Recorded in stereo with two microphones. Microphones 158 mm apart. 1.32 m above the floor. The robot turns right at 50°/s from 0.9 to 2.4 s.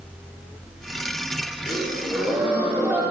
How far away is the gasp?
About 4.5 m.